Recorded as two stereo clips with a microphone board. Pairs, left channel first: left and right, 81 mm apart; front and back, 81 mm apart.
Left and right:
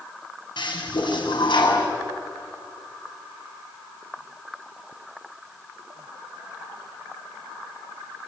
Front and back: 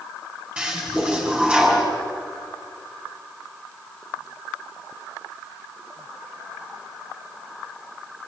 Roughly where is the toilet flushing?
Left.